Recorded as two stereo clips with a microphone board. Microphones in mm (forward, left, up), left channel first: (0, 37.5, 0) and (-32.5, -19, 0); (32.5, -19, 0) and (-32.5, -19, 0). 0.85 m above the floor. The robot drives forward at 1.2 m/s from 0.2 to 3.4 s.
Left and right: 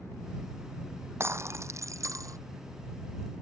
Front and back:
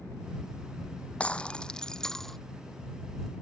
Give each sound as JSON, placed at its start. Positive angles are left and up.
{"t": 1.2, "sound": "breaking glass", "azimuth_deg": -75}